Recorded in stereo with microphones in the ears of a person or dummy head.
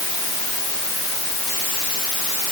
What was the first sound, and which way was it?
Only background noise.